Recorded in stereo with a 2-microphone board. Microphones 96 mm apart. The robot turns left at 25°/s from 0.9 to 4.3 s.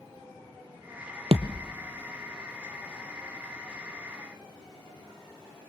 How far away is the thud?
About 0.8 m.